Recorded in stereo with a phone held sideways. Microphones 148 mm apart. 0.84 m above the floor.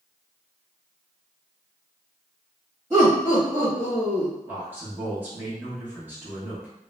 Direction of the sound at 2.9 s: 40° right (ahead or behind).